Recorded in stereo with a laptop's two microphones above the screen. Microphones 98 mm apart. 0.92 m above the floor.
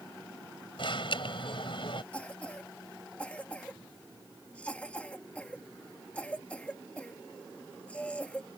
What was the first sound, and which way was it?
An alarm, 65° left (ahead or behind).